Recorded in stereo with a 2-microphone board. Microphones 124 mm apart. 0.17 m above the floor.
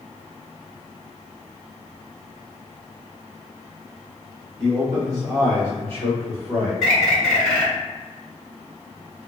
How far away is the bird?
About 1.1 m.